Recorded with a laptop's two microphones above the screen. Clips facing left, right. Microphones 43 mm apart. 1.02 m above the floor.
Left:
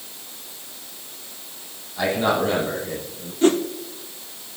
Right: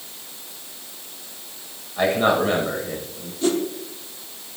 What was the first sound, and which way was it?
A man speaking, 35° right (ahead or behind).